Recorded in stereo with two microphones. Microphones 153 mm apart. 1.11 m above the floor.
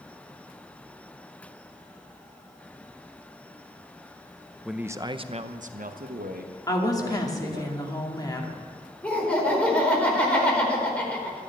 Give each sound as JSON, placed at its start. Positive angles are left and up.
{"t": 4.7, "sound": "a man speaking", "side_deg": 0, "distance_m": 0.8}
{"t": 6.7, "sound": "a woman speaking", "side_deg": 25, "distance_m": 2.5}
{"t": 9.0, "sound": "laughter", "side_deg": 10, "distance_m": 4.5}